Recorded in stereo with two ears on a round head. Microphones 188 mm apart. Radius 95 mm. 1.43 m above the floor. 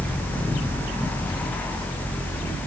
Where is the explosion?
No explosion in this recording.